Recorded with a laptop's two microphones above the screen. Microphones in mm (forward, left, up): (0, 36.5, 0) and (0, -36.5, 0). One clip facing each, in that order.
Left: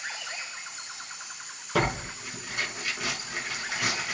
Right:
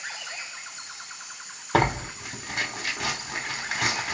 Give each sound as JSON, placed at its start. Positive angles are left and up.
{"t": 1.7, "sound": "tearing paper", "side_deg": -80, "distance_m": 3.5}